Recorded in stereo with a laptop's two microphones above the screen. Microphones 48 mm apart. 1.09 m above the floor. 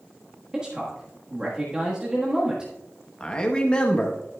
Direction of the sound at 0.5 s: 15° right (ahead or behind).